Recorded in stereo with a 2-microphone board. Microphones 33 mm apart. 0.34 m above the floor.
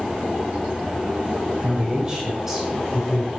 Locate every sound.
1.6 s a man speaking: 30° right (ahead or behind), 1.7 m; by 3.3 s 5° left (ahead or behind), 2 m